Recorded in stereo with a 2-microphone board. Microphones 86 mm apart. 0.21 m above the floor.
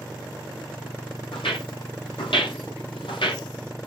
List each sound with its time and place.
1.3 s footsteps: 85° left, 4.5 m; by 3.5 s 80° left, 2.5 m